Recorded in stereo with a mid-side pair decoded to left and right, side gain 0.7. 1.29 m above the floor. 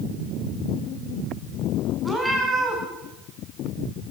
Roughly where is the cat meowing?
Ahead.